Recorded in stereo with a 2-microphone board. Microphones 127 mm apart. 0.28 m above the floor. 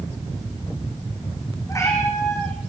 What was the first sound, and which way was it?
A cat meowing, 25° left (ahead or behind).